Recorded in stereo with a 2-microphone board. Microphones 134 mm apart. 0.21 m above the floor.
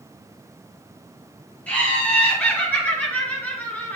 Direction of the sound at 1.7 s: 10° left (ahead or behind).